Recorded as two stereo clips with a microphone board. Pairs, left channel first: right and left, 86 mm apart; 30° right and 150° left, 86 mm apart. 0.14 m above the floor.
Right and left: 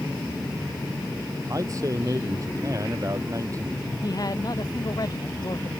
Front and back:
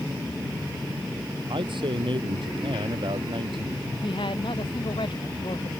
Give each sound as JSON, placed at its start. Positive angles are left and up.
{"t": 1.5, "sound": "a man speaking", "azimuth_deg": 140}
{"t": 4.0, "sound": "a man speaking", "azimuth_deg": -45}